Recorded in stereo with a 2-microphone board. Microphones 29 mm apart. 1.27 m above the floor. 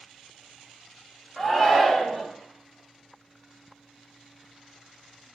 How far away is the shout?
About 1.0 m.